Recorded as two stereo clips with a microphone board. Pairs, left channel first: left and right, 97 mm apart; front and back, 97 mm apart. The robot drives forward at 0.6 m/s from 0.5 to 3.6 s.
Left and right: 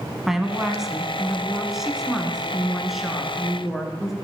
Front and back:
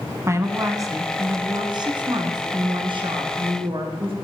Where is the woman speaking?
175° right, 1.7 m; by 4.1 s straight behind, 3 m.